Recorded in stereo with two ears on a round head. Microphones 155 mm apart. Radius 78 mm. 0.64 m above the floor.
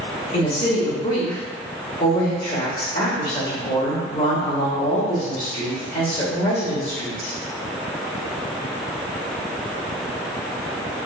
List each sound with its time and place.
0.3 s a woman speaking: 50° left (ahead or behind), 1.2 m